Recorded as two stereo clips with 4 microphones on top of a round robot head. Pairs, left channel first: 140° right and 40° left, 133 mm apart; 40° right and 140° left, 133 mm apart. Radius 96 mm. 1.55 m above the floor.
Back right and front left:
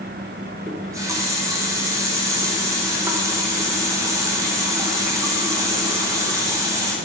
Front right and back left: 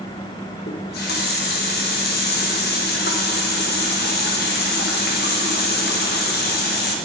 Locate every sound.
0.7 s a running tap: 30° right, 1.1 m